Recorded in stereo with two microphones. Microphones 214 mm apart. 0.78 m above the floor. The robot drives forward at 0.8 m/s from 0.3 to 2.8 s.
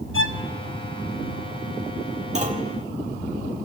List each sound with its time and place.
0.1 s a violin: 65° left (ahead or behind), 0.9 m; by 0.4 s 60° left (ahead or behind), 0.9 m
2.4 s a clunk: 35° right (ahead or behind), 1.8 m; by 2.7 s 40° right (ahead or behind), 1.6 m